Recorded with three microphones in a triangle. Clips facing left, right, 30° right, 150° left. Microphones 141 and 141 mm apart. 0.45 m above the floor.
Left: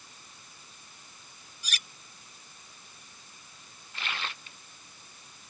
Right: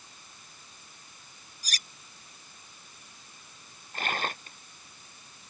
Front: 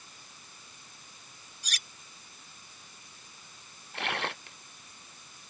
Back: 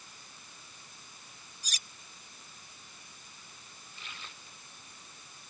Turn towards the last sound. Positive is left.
turn(degrees=-45)